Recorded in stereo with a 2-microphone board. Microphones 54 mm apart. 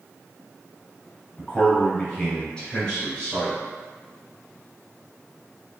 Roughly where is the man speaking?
Centre.